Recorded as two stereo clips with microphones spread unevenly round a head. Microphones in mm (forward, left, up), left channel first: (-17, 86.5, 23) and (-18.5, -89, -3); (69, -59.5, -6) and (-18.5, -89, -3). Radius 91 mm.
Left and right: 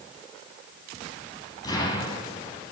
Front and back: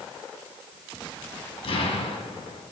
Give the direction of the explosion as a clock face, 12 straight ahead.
11 o'clock.